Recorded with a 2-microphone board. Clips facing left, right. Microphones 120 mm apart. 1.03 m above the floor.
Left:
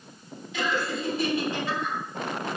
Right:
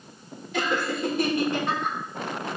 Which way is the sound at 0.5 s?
55° right (ahead or behind).